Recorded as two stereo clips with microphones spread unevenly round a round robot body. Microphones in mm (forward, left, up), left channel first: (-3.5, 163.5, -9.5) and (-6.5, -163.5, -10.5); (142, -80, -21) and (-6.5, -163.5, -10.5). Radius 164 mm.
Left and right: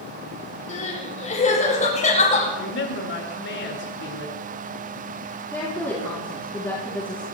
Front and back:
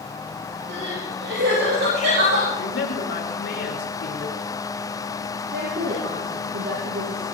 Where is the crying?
160° left, 8.5 m.